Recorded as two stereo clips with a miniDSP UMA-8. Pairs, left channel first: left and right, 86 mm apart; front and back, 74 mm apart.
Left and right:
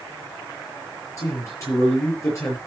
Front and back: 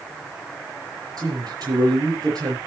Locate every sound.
1.2 s a man speaking: 145° left, 6 m